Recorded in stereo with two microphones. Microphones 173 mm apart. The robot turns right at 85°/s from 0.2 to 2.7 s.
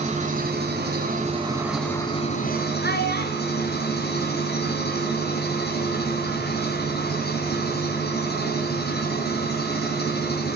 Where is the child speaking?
70° left (ahead or behind), 1.7 m.